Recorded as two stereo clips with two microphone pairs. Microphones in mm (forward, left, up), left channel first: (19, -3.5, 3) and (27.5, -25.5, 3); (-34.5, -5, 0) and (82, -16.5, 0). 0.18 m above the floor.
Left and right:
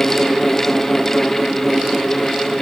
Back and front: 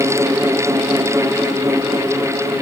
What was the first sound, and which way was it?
Only background noise.